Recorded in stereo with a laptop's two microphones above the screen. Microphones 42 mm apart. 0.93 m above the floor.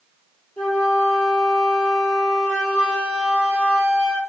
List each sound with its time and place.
0.6 s a flute: 65° left (ahead or behind), 3 m